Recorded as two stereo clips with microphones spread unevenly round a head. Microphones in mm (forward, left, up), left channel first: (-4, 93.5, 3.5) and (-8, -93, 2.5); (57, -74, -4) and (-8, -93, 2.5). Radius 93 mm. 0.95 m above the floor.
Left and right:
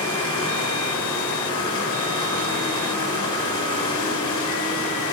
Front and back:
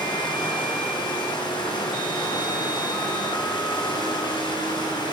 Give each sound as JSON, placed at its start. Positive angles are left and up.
{"t": 0.0, "sound": "running water", "azimuth_deg": 20, "distance_m": 7.5}